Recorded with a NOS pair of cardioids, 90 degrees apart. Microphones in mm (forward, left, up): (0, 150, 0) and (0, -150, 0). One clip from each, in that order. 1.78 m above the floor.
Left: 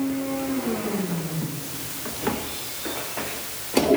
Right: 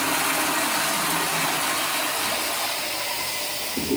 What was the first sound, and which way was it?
Only background noise.